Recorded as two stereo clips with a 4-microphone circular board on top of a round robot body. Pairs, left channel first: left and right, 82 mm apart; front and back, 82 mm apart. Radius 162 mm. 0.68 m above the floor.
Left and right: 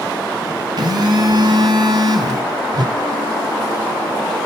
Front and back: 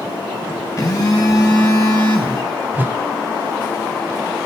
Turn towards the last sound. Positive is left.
turn(degrees=-115)